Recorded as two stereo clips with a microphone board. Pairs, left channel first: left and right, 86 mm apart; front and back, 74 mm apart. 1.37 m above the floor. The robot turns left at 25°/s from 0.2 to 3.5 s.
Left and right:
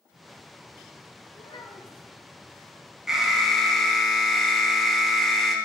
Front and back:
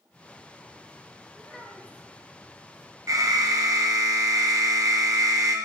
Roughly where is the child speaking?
Left.